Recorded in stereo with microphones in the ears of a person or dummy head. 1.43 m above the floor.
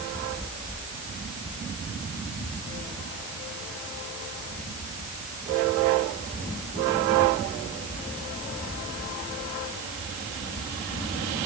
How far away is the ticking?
I don't hear ticking.